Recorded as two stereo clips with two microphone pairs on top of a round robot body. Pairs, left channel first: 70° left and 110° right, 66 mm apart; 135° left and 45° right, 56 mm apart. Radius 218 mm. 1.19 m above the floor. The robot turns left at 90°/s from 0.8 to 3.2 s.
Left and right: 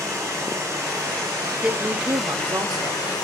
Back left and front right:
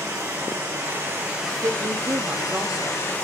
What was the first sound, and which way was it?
Running water, 70° right.